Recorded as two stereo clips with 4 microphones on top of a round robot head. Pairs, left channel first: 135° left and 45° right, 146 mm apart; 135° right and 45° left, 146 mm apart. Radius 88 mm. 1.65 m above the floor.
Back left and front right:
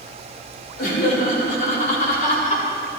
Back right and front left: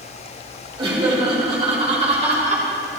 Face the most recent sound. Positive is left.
turn(degrees=90)